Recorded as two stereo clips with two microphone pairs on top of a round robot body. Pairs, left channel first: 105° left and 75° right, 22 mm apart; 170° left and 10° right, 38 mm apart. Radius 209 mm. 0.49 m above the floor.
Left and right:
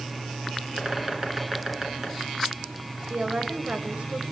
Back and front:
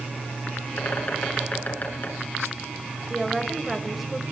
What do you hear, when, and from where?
0.8 s a bird: 145° right, 6 m
3.1 s a woman speaking: 95° right, 4 m